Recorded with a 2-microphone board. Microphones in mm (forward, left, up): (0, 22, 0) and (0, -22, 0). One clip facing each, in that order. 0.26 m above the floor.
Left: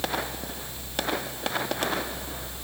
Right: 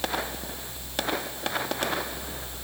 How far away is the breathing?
I don't hear breathing.